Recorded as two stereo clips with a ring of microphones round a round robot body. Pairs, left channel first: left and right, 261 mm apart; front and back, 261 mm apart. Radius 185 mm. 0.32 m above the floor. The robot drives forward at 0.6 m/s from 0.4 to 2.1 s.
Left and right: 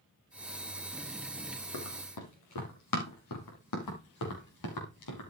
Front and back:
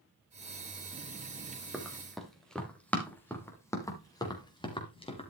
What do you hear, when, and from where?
1.7 s running footsteps: 90° left, 4.5 m; by 5.3 s 70° left, 4.5 m